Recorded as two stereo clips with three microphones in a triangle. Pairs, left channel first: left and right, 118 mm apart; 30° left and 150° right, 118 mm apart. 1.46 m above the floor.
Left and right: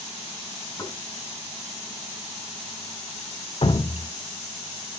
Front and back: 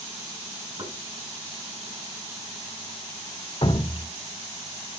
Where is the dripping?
65° left, 0.9 m.